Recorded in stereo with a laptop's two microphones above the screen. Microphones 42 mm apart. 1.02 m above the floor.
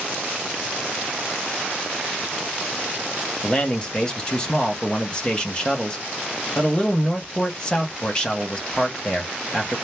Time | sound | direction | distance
3.4 | a man speaking | 20° left (ahead or behind) | 0.7 m